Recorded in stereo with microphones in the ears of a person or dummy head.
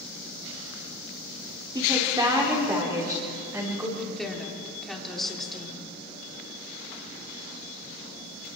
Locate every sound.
1.8 s a woman speaking: 20° right (ahead or behind), 3.5 m; by 3.9 s 15° right (ahead or behind), 6 m
4.0 s a woman speaking: centre (ahead or behind), 3.5 m